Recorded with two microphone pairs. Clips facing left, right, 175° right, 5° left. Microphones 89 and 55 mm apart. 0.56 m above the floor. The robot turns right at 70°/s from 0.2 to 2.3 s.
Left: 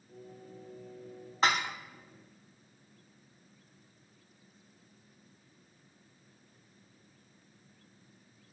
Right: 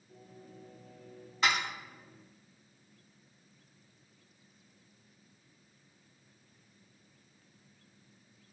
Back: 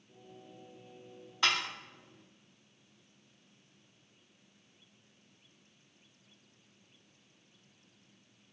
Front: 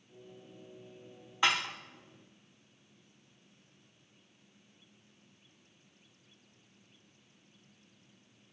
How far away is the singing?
About 2.5 m.